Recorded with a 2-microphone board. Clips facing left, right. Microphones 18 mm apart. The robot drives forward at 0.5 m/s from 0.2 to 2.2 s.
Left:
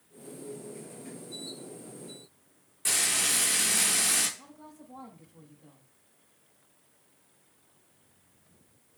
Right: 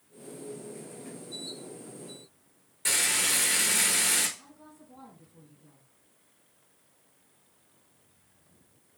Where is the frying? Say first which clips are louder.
Right 1 dB; 10° right (ahead or behind), 4 m.